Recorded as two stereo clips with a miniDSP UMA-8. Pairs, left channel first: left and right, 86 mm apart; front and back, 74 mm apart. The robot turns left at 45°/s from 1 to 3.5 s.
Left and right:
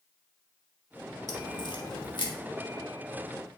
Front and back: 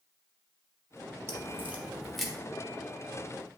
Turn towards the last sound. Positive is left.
turn(degrees=30)